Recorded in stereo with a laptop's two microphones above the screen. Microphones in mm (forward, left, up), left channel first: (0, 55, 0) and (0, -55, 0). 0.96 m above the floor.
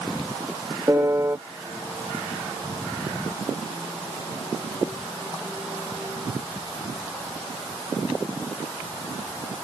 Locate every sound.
0.9 s a piano: 25° right (ahead or behind)